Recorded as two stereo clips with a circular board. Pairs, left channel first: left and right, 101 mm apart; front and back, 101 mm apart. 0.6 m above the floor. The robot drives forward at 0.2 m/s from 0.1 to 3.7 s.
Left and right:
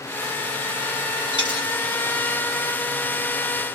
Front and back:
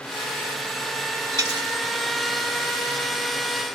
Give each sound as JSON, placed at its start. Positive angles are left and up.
{"t": 1.3, "sound": "a dropped coin", "azimuth_deg": 130, "distance_m": 1.7}